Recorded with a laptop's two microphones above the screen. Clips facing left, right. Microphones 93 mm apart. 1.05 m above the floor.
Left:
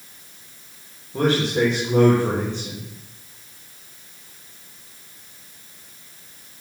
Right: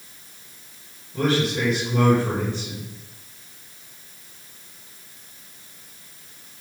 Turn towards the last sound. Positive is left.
turn(degrees=70)  # may be behind; listen again after turning